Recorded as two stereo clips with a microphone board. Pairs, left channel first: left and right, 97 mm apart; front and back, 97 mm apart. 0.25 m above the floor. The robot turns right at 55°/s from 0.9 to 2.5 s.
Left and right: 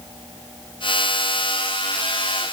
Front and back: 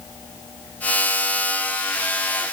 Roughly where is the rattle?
I don't hear a rattle.